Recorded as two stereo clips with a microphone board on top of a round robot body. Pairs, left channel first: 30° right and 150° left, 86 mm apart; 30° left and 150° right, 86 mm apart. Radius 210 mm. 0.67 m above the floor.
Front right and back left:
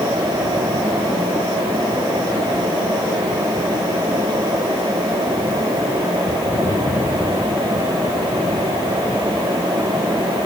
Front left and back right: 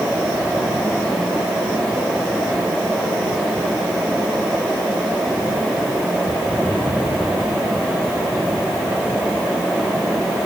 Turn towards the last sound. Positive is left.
No sound to turn to.